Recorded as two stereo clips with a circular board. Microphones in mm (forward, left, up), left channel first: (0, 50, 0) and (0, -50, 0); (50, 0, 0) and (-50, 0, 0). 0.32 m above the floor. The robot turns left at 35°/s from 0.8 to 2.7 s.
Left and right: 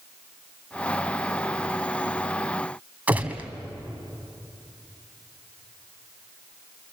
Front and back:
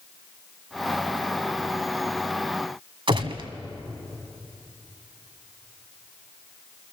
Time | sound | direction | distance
3.1 | a gunshot | 165° right | 1.6 m